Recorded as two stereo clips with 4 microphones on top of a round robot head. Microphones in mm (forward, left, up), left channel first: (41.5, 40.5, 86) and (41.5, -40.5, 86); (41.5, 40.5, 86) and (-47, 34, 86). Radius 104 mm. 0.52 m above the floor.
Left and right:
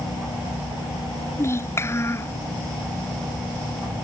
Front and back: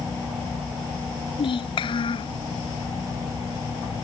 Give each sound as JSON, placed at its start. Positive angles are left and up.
{"t": 1.4, "sound": "a child speaking", "azimuth_deg": 30}